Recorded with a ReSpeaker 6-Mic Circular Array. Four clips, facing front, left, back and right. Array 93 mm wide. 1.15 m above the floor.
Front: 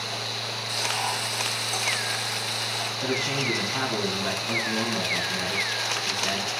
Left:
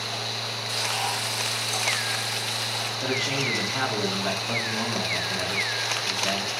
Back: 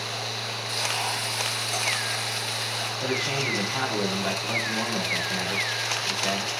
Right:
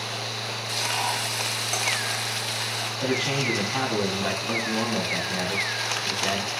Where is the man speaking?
105° right, 8 m.